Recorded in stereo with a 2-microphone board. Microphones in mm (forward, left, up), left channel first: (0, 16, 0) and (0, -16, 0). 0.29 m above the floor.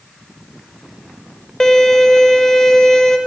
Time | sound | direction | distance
1.6 | a violin | 20° left (ahead or behind) | 0.5 m